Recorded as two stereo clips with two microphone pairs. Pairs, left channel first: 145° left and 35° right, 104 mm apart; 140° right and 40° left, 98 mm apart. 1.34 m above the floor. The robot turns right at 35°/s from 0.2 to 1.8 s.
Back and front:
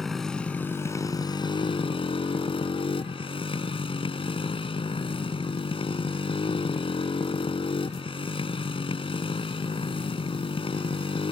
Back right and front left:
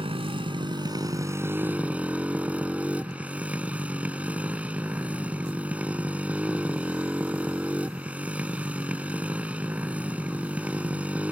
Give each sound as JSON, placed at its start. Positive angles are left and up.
{"t": 0.0, "sound": "a motorcycle", "azimuth_deg": 60}